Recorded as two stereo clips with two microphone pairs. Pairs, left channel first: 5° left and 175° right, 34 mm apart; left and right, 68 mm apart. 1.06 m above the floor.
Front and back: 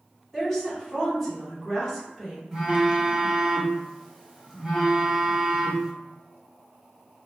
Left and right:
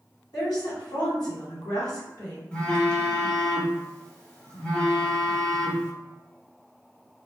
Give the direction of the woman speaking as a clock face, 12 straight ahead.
9 o'clock.